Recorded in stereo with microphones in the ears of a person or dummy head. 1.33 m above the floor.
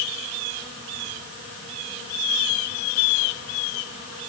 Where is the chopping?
I don't hear chopping.